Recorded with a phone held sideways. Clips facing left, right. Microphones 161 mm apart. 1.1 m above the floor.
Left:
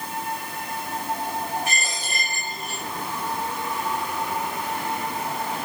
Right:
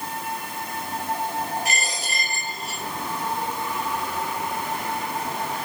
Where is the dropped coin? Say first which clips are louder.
Right 1 dB; 70° right (ahead or behind), 6 m.